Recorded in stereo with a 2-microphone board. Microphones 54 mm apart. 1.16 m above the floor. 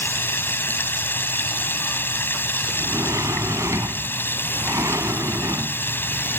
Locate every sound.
0.0 s running water: 45° left (ahead or behind)
2.7 s a sliding door: 70° right (ahead or behind)